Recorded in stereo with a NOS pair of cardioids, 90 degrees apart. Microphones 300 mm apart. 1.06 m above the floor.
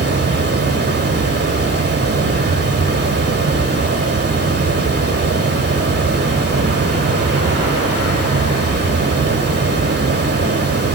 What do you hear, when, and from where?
0.0 s running water: 35° right, 2.5 m